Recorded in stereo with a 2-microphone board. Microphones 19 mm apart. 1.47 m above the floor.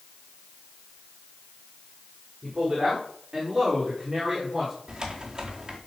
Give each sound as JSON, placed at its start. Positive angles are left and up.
{"t": 2.4, "sound": "a man speaking", "side_deg": -30, "distance_m": 5.0}
{"t": 4.9, "sound": "typing on a keyboard", "side_deg": -30, "distance_m": 4.0}